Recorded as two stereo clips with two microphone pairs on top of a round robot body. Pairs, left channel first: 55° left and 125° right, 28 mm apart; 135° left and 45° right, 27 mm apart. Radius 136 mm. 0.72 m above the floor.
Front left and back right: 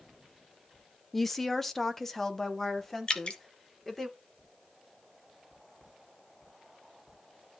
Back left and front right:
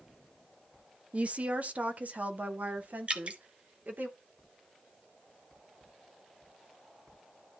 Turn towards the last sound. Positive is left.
turn(degrees=5)